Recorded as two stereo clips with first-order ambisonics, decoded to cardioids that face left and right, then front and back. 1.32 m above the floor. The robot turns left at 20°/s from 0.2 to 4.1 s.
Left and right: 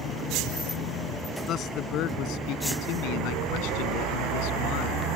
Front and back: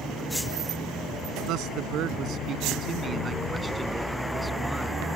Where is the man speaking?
145° left; by 5.1 s 95° left.